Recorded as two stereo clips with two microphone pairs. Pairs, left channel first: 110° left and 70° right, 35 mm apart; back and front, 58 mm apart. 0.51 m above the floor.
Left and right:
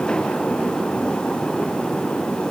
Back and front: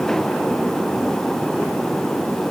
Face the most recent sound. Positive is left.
No sound to turn to.